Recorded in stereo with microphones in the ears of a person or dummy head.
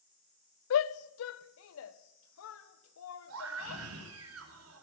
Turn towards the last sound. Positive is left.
turn(degrees=-85)